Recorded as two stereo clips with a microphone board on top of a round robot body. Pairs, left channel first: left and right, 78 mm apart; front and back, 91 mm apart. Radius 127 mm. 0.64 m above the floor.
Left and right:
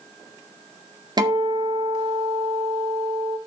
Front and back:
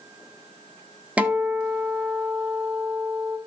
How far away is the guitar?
About 1.9 m.